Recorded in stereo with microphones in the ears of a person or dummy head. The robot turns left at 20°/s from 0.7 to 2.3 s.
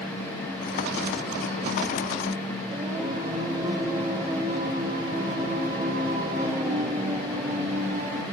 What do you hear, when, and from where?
2.7 s singing: 20° right (ahead or behind), 1.5 m